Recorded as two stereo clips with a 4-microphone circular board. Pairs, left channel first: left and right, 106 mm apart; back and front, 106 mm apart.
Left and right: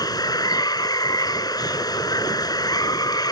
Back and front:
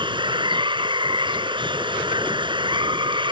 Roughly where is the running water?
Ahead left.